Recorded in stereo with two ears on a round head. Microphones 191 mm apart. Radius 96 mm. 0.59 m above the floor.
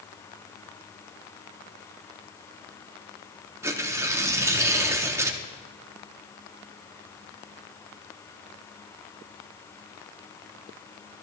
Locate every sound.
3.6 s tearing paper: 15° right (ahead or behind), 0.7 m